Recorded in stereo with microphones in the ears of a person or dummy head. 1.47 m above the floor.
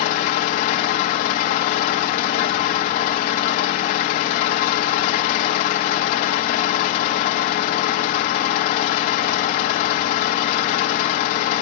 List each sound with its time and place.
0.0 s an engine running: 30° left (ahead or behind), 1.0 m